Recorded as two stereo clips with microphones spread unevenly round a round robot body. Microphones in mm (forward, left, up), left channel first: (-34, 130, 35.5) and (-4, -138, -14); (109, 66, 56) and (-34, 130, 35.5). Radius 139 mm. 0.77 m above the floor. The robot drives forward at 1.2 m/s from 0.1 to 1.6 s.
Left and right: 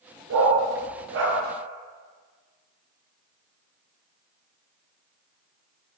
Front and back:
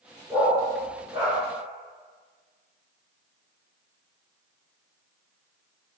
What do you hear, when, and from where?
0.3 s a dog barking: 125° right, 6 m; by 1.4 s 130° right, 7 m